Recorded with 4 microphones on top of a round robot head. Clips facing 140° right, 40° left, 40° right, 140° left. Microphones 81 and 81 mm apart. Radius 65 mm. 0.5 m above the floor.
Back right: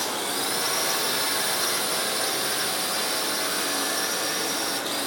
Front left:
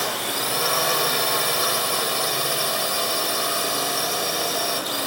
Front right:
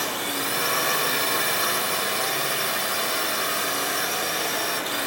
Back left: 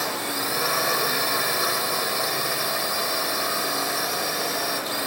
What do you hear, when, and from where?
0.0 s a drone: 60° left